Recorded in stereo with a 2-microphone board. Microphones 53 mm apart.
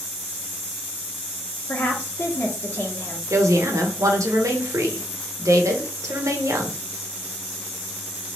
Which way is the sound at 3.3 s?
75° right (ahead or behind).